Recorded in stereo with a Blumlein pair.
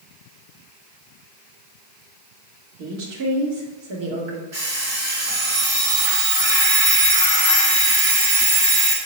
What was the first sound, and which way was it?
A woman speaking, 50° right.